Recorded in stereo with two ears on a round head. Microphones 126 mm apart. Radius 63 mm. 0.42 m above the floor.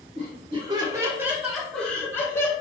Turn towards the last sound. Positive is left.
turn(degrees=25)  # may be behind; listen again after turning